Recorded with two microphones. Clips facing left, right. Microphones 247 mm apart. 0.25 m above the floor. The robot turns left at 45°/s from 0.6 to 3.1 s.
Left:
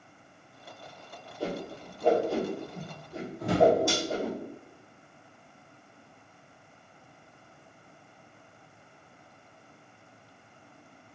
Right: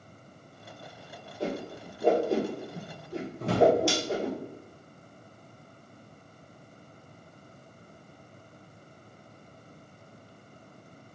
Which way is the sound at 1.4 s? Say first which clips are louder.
Right 1 dB; 20° right (ahead or behind).